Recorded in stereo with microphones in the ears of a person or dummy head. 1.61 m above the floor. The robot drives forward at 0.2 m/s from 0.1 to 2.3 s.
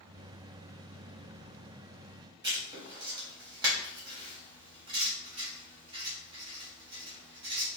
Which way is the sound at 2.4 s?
20° right (ahead or behind).